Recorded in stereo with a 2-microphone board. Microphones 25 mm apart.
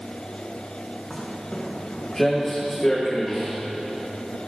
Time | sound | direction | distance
1.1 | footsteps | 15° left (ahead or behind) | 4 m